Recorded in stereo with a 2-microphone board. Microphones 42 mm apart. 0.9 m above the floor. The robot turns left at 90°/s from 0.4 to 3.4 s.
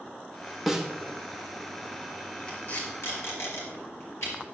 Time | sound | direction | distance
0.7 | a snare drum | centre (ahead or behind) | 1.1 m
2.5 | tape being pulled | 15° left (ahead or behind) | 4 m